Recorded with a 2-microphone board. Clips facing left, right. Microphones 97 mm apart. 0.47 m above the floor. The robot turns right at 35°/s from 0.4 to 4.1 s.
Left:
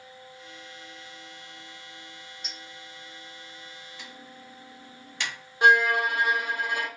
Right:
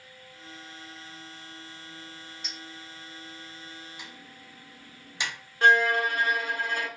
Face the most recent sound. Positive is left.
turn(degrees=15)  # may be behind; listen again after turning